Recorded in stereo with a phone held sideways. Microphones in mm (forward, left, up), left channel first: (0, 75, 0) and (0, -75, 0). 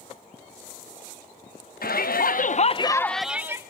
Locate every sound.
1.8 s a shout: 85° left, 1.0 m; by 3.6 s 20° right (ahead or behind), 0.8 m